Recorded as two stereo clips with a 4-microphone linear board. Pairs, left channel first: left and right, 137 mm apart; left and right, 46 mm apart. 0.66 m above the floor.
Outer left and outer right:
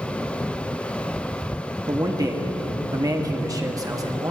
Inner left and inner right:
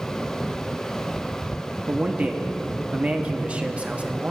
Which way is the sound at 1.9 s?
25° right (ahead or behind).